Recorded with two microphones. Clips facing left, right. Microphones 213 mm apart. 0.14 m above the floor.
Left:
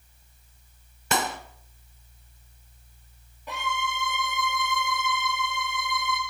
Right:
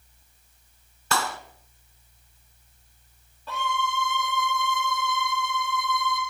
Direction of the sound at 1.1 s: 20° left (ahead or behind).